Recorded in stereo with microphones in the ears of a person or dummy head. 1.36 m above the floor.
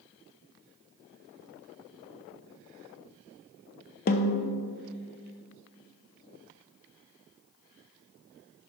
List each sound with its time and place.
4.1 s a snare drum: 45° left (ahead or behind), 0.6 m